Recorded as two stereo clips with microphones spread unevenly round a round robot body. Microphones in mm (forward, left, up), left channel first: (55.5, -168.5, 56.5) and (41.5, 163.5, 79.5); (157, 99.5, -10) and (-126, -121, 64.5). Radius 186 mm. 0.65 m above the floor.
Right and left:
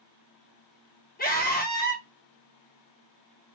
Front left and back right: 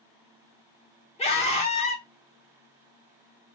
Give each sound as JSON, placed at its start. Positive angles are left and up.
{"t": 1.2, "sound": "a scream", "azimuth_deg": -30, "distance_m": 1.8}